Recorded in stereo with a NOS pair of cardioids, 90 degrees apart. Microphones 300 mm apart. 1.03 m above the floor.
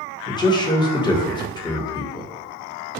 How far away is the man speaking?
About 0.7 m.